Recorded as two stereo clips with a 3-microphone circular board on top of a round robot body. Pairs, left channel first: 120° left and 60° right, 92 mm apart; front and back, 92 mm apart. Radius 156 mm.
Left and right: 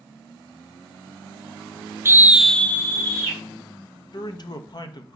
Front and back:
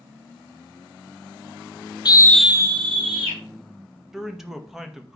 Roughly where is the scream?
Ahead.